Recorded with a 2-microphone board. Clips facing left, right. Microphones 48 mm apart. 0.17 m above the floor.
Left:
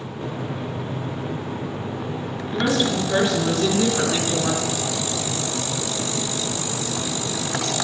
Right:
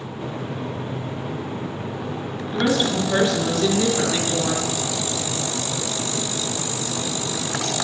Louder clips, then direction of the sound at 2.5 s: Right 1 dB; centre (ahead or behind).